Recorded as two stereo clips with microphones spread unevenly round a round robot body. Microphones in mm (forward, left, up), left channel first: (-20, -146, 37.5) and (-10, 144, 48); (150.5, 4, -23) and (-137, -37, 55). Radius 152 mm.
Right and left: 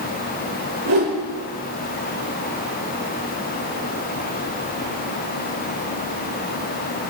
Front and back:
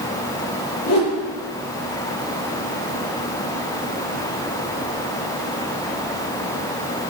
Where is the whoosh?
55° left, 7.5 m.